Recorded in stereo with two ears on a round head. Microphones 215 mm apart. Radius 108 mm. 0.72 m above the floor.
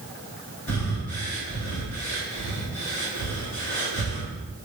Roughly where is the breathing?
Left.